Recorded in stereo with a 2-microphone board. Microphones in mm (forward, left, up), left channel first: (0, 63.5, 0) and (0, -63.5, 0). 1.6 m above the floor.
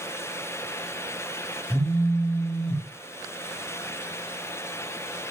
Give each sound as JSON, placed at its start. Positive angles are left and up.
{"t": 1.7, "sound": "a phone buzzing", "side_deg": 5, "distance_m": 1.0}